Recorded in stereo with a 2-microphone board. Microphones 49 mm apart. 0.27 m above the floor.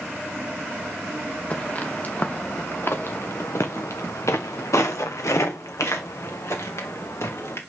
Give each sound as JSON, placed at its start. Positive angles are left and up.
{"t": 1.5, "sound": "footsteps", "side_deg": 30, "distance_m": 1.8}